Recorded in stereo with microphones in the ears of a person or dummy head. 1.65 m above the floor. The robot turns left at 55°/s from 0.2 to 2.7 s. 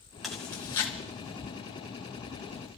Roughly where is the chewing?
Centre.